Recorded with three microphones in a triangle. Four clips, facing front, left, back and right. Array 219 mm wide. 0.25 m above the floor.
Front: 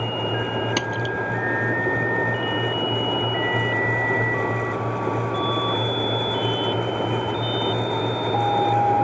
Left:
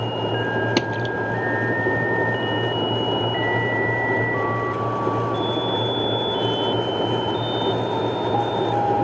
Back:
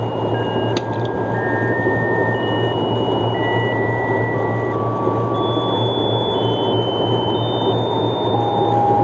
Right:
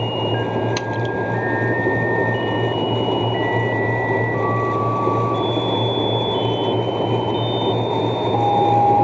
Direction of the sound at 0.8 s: 100° left.